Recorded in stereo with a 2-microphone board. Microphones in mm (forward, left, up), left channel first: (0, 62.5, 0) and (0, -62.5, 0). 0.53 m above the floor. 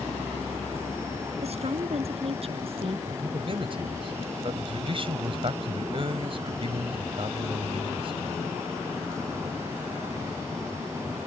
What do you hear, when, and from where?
1.4 s a woman speaking: 55° right (ahead or behind); by 3.0 s 50° right (ahead or behind)
3.1 s a man speaking: 45° right (ahead or behind)